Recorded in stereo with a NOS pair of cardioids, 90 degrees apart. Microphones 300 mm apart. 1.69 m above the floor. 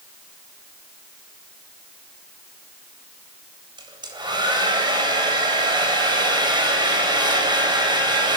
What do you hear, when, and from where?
3.8 s a hair dryer: 15° right, 8.5 m